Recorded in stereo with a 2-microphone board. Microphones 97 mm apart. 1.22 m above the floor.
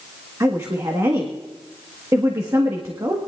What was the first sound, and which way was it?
A woman speaking, 35° right (ahead or behind).